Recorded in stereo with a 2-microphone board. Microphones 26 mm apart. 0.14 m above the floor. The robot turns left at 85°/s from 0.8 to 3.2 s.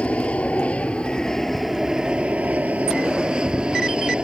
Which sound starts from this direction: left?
An aircraft, at 0.0 s.